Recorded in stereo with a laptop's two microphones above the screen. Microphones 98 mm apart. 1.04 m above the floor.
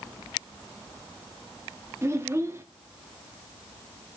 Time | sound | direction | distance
2.0 | a child speaking | 25° right (ahead or behind) | 0.8 m